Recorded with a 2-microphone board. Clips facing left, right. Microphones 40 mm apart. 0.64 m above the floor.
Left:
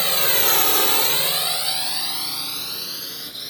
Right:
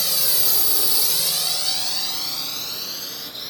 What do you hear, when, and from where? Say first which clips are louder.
0.0 s a drone: left 5 dB; 35° left (ahead or behind); by 3.5 s 5° left (ahead or behind)